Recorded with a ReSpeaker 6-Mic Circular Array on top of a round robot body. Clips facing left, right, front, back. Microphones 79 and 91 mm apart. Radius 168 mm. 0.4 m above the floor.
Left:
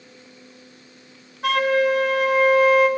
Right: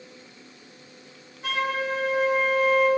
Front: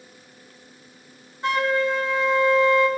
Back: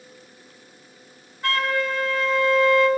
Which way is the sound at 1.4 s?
70° left.